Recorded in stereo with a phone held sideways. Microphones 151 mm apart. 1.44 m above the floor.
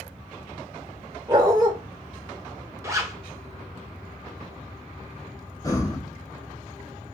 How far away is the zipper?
About 1.1 m.